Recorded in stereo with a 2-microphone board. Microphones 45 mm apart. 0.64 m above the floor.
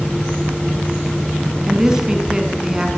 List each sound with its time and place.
1.7 s a woman speaking: 15° right (ahead or behind), 5.5 m